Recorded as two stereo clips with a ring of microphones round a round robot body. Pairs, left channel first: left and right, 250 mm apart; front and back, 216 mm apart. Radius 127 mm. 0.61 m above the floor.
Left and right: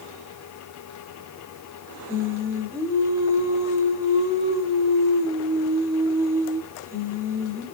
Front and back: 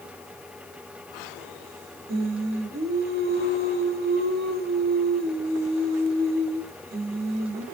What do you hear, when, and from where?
2.1 s singing: 165° right, 1.6 m